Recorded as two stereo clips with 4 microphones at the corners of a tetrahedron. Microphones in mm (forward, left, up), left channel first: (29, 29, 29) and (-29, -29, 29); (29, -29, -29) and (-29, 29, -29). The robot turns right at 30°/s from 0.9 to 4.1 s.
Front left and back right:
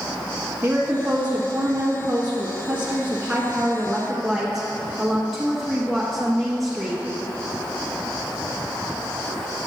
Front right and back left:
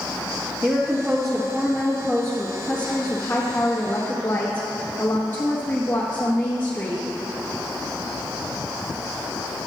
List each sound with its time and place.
0.6 s a woman speaking: 140° right, 1.1 m; by 7.0 s 45° right, 1.1 m